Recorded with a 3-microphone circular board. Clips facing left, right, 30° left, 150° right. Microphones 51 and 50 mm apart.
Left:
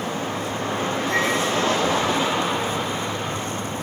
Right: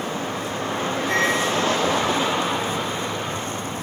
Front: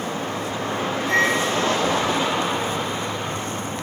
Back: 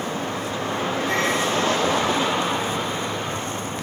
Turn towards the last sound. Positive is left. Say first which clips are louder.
# right 2 dB, front 5 dB
turn(degrees=-70)